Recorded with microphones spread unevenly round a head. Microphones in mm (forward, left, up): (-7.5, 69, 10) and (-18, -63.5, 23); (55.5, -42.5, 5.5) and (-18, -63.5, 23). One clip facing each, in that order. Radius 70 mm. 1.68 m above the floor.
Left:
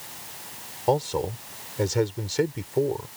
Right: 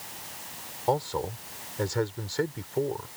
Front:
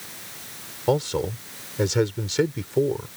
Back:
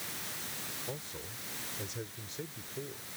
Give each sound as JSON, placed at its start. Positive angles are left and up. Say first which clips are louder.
{"t": 0.9, "sound": "a man speaking", "louder": "left 4 dB, front 25 dB", "azimuth_deg": 15}